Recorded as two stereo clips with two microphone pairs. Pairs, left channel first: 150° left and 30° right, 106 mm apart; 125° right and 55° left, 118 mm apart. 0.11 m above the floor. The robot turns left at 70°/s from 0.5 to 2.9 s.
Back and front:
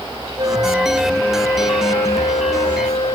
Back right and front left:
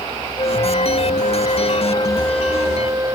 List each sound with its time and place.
0.4 s a flute: 75° right; by 3.1 s 120° left